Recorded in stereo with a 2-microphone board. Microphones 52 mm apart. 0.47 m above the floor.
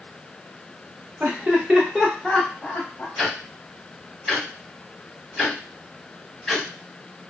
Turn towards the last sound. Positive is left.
turn(degrees=0)  # may be behind; listen again after turning